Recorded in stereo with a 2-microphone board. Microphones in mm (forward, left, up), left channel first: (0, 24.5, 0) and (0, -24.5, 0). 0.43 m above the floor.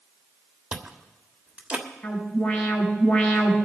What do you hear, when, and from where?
0.7 s chewing: 25° right (ahead or behind), 1.4 m
2.0 s an alarm: 25° left (ahead or behind), 4 m